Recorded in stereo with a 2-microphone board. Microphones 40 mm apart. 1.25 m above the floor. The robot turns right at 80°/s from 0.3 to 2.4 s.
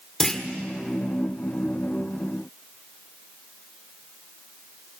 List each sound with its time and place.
0.2 s a clunk: 15° left (ahead or behind), 1.7 m; by 0.4 s 5° left (ahead or behind), 1.7 m